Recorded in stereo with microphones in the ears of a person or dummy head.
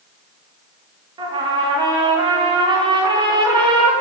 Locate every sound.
1.2 s a trumpet: 25° right (ahead or behind), 0.6 m